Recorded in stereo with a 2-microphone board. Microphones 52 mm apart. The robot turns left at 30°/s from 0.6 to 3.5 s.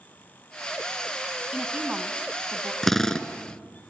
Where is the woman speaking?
20° right, 1.6 m; by 2.7 s 55° right, 1.6 m.